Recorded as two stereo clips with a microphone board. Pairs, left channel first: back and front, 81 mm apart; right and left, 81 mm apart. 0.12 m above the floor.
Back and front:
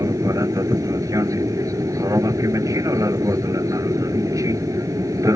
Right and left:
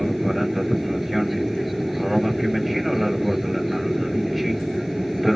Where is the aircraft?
Straight ahead.